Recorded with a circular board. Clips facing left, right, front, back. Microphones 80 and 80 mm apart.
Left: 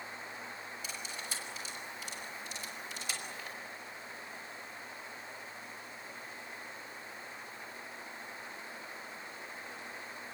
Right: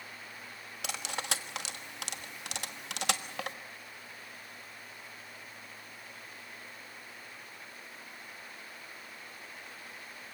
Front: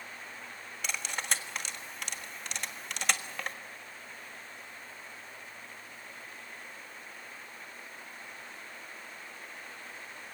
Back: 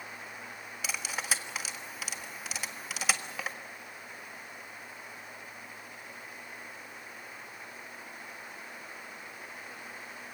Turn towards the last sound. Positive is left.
turn(degrees=-95)